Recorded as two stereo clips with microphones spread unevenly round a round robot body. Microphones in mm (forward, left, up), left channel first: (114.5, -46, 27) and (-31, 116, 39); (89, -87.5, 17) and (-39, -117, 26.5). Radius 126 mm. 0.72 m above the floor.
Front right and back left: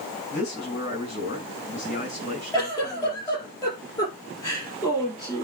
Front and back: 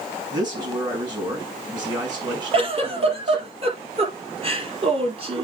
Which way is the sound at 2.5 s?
125° right.